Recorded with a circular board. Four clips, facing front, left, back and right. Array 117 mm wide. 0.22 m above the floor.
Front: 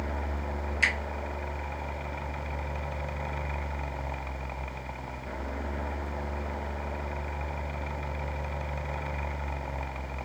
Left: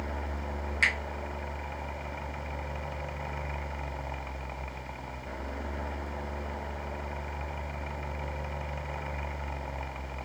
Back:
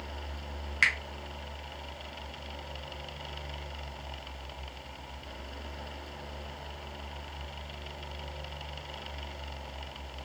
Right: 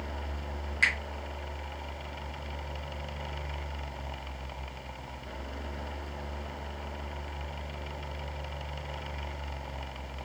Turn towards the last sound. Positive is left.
turn(degrees=175)